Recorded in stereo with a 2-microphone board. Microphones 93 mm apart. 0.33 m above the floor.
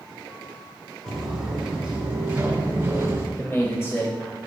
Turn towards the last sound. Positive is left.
turn(degrees=30)  # may be behind; listen again after turning